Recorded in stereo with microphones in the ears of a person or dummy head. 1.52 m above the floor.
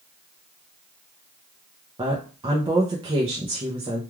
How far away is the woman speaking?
About 0.6 m.